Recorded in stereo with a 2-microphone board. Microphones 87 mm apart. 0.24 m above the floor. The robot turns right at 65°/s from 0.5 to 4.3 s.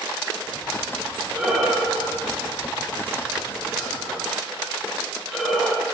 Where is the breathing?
15° right (ahead or behind), 1.0 m; by 5.8 s centre (ahead or behind), 1.0 m.